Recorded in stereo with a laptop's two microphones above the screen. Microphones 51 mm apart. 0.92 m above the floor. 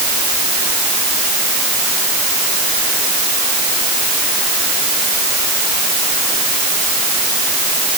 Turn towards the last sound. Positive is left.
No sound to turn to.